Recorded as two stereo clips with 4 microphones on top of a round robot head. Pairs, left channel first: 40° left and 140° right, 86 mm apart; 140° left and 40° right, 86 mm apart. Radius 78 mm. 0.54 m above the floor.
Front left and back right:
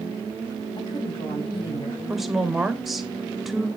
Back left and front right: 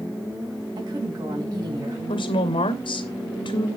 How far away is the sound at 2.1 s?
About 2.5 m.